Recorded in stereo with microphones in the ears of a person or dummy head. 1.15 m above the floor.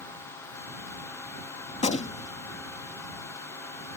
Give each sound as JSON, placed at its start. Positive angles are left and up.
{"t": 1.7, "sound": "a gunshot", "side_deg": 35}